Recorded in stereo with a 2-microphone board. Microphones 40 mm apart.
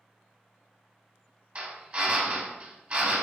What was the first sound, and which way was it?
A drill, 30° right (ahead or behind).